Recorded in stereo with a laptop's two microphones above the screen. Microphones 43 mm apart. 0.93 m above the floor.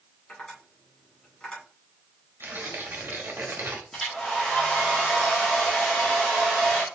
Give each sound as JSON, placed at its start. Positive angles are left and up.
{"t": 0.3, "sound": "tapping", "side_deg": 25, "distance_m": 2.5}
{"t": 2.4, "sound": "tearing paper", "side_deg": -55, "distance_m": 1.1}
{"t": 3.9, "sound": "a hair dryer", "side_deg": 10, "distance_m": 1.4}